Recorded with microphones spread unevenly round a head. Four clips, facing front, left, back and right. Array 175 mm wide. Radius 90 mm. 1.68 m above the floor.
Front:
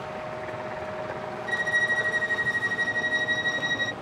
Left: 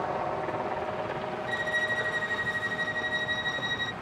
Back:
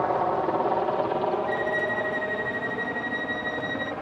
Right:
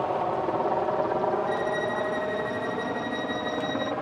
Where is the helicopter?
160° right; by 4.0 s 110° right.